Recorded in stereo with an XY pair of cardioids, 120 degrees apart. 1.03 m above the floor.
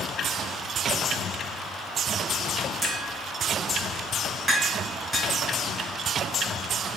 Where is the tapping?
20° right, 4.5 m.